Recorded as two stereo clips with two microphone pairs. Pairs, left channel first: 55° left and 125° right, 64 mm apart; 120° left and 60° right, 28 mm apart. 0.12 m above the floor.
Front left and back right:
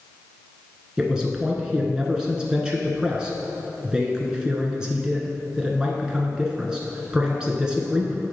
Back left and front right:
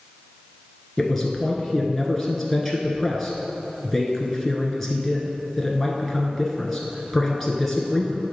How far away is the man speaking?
About 1.1 m.